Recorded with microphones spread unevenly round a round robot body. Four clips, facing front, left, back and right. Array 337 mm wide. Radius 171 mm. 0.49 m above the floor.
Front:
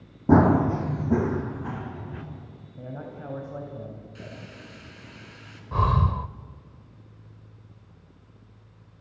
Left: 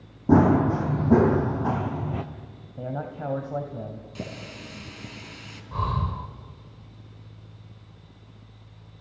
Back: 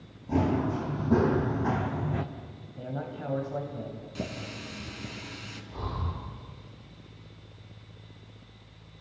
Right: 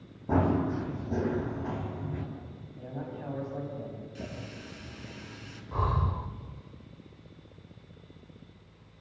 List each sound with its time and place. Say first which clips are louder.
0.3 s running footsteps: left 9 dB, front 9 dB; 45° left, 1.6 m; by 2.2 s 125° left, 2.5 m
2.8 s a man speaking: left 7 dB, back 2 dB; 95° left, 3 m
4.2 s a running tap: left 4 dB, back 5 dB; 130° left, 4.5 m
5.7 s breathing: left 2 dB, front 13 dB; 15° left, 0.9 m